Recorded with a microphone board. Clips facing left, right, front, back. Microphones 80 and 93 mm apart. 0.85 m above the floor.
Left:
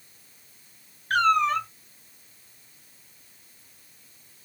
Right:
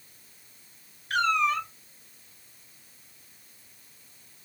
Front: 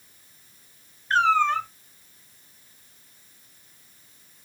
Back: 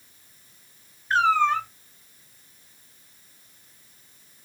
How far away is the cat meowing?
About 0.9 m.